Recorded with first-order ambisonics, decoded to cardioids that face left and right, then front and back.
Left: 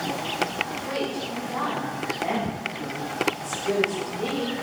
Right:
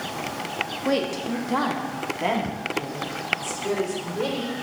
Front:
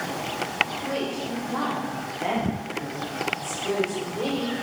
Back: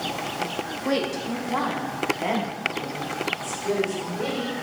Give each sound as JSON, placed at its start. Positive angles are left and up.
{"t": 0.8, "sound": "a woman speaking", "azimuth_deg": -125, "distance_m": 1.2}